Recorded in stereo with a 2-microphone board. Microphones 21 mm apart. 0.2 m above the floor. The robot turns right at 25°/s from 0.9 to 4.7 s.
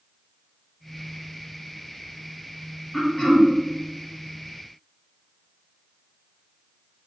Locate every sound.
2.9 s throat clearing: 15° left (ahead or behind), 0.9 m; by 3.5 s 25° left (ahead or behind), 0.9 m